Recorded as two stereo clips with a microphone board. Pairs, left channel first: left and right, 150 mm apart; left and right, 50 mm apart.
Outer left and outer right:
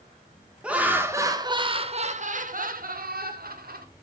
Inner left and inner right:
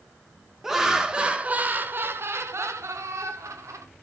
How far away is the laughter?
About 1.4 m.